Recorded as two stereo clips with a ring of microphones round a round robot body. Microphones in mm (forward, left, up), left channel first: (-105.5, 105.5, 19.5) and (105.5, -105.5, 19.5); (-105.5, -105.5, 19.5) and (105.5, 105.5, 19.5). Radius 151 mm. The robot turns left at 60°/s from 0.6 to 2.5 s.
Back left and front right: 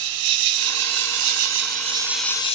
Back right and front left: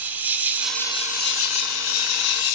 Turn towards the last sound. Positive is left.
turn(degrees=-155)